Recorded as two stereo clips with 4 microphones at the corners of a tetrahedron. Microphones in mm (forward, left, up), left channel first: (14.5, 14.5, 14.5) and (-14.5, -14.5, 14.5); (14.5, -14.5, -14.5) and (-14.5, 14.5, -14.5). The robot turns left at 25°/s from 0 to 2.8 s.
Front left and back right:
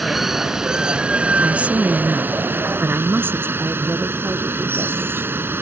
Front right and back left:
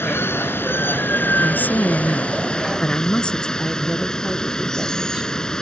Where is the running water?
45° right; by 5.6 s 115° right.